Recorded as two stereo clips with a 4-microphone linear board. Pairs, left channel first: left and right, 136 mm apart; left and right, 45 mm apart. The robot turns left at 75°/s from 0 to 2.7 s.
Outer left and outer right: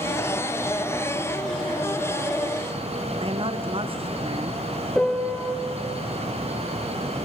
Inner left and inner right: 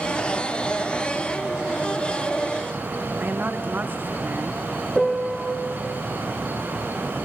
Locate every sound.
3.2 s a woman speaking: 40° right (ahead or behind), 0.7 m
5.0 s a piano: 5° left (ahead or behind), 0.8 m